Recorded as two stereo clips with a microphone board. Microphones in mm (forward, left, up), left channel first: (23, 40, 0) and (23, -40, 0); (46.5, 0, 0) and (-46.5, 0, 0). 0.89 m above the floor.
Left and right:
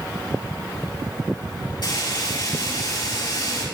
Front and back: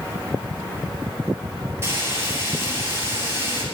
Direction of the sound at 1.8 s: 115° left.